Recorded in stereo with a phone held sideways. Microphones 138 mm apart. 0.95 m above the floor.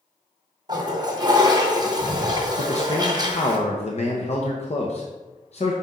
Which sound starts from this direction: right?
A toilet flushing, at 0.7 s.